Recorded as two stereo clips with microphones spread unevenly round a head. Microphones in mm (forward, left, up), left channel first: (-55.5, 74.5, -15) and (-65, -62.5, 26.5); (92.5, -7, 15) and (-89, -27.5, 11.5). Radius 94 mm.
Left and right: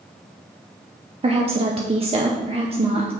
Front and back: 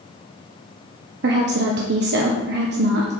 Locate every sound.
1.2 s a woman speaking: 145° right, 0.9 m